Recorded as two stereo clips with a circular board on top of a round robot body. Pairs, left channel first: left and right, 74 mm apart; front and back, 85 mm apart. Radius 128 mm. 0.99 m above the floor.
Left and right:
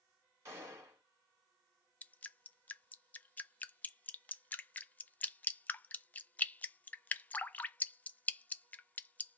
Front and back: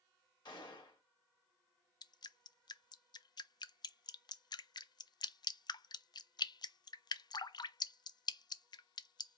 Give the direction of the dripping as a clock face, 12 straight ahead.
11 o'clock.